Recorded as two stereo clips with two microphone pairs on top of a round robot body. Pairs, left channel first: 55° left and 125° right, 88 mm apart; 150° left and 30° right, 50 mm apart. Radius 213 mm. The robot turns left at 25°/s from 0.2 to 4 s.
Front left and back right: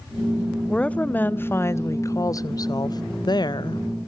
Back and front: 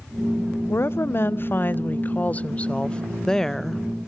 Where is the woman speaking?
135° left, 0.7 m; by 3.8 s 60° left, 0.7 m.